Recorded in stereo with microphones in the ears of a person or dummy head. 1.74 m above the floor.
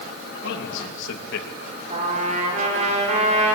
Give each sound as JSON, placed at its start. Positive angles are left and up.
{"t": 0.4, "sound": "a man speaking", "side_deg": 70, "distance_m": 4.0}
{"t": 1.9, "sound": "a trumpet", "side_deg": -40, "distance_m": 5.0}